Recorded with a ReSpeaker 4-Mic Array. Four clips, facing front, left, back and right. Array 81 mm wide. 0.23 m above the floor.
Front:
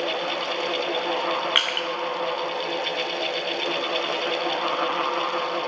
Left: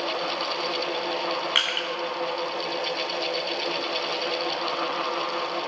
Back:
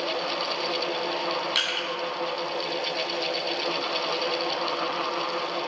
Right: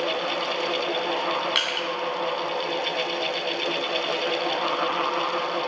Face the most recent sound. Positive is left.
turn(degrees=10)